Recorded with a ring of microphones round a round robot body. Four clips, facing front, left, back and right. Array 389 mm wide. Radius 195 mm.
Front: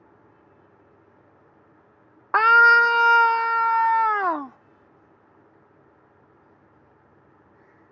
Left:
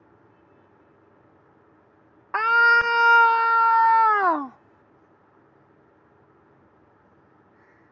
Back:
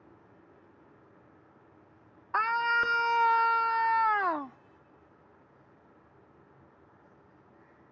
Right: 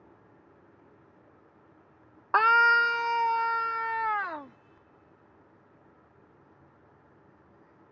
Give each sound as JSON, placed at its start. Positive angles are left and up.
{"t": 2.3, "sound": "a scream", "azimuth_deg": -15}